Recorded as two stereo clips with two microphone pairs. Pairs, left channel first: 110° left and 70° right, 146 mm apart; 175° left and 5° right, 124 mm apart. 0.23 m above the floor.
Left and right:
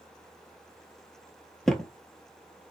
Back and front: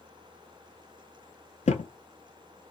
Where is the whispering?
No whispering in this recording.